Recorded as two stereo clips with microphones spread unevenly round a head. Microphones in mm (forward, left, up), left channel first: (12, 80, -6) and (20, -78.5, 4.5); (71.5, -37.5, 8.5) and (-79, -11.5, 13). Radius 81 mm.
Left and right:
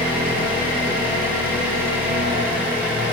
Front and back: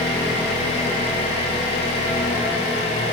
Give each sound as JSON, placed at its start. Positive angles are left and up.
{"t": 0.0, "sound": "an engine running", "azimuth_deg": -55, "distance_m": 1.9}